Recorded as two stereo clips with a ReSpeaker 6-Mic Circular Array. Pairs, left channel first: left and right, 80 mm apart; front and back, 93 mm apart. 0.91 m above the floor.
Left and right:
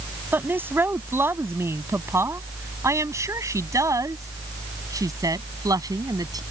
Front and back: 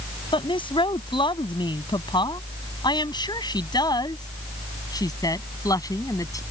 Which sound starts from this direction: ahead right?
A woman speaking, at 0.3 s.